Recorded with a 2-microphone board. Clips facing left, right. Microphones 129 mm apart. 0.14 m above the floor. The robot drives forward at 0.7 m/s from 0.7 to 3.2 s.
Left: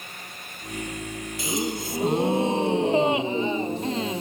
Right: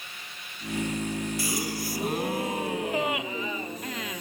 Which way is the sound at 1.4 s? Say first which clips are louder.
Left 3 dB; 20° left (ahead or behind).